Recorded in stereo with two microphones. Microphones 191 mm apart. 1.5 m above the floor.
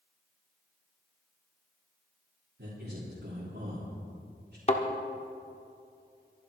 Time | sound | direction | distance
2.6 | a man speaking | 70° right (ahead or behind) | 3 m
4.7 | a thud | 35° left (ahead or behind) | 1.2 m